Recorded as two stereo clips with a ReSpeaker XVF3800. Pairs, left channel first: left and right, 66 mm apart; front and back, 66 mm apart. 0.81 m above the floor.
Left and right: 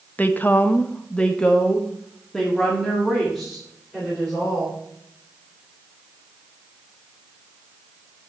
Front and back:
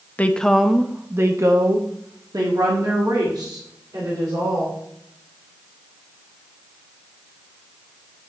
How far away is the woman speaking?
About 0.8 m.